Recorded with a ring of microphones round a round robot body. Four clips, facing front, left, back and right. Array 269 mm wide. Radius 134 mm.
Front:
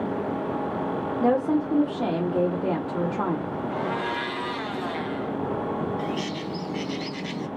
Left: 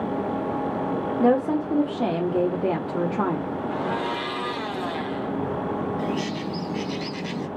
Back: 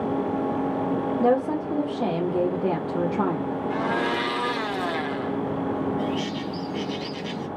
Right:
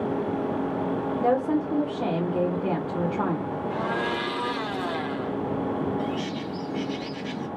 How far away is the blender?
About 0.8 m.